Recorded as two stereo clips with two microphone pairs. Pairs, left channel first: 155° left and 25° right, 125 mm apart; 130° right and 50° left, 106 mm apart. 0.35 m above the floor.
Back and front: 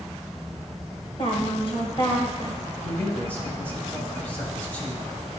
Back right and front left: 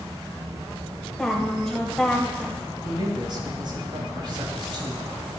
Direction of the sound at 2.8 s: 80° left.